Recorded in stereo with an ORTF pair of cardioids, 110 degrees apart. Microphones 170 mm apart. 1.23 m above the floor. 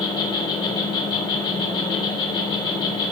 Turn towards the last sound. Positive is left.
turn(degrees=30)